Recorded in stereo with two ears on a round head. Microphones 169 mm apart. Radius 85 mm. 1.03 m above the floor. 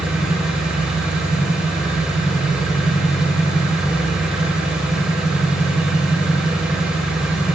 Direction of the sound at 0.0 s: 5° right (ahead or behind).